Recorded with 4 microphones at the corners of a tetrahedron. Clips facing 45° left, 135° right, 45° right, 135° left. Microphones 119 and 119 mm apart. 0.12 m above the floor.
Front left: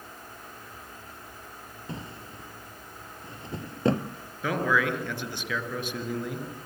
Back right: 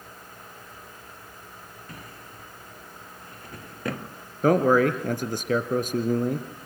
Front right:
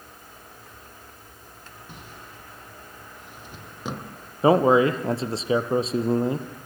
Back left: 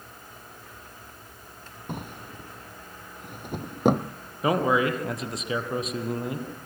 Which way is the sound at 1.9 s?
110° left.